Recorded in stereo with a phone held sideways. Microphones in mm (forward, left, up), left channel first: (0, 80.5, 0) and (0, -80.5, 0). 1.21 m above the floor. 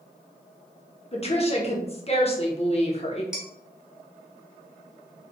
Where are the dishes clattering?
5° right (ahead or behind), 1.4 m.